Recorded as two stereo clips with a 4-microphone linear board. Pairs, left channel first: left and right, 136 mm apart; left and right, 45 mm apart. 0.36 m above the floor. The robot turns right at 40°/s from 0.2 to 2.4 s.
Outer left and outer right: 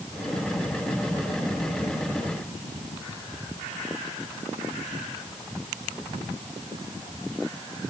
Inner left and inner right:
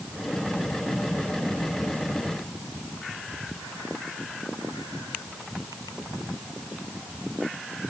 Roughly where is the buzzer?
I don't hear a buzzer.